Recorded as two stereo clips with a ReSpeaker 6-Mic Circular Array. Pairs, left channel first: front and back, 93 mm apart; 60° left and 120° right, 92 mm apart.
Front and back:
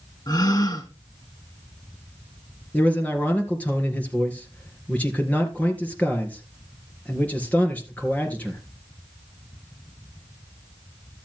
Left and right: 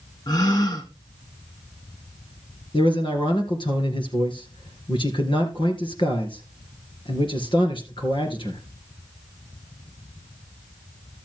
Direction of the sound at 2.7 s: 75° left.